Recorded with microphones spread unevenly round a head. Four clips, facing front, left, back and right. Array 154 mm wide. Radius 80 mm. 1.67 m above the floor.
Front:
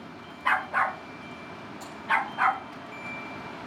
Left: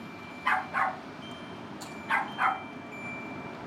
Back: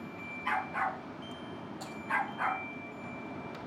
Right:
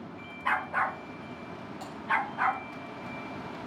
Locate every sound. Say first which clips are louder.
0.5 s a dog barking: left 1 dB, front 7 dB; straight ahead, 1.7 m; by 2.6 s 10° left, 3.5 m
1.8 s typing on a keyboard: right 1 dB, front 2 dB; 105° right, 5 m